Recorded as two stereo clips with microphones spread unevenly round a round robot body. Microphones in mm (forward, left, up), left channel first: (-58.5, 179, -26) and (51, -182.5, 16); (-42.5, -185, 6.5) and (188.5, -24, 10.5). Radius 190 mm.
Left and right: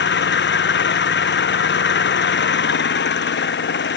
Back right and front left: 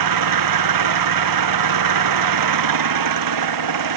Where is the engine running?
45° left.